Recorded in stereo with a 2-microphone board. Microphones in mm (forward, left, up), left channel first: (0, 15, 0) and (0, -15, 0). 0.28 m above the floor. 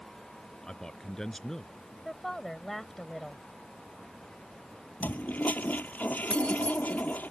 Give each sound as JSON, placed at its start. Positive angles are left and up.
{"t": 0.6, "sound": "a man speaking", "side_deg": 25}
{"t": 2.0, "sound": "a woman speaking", "side_deg": 10}
{"t": 5.0, "sound": "a toilet flushing", "side_deg": 75}
{"t": 6.3, "sound": "keys jangling", "side_deg": 40}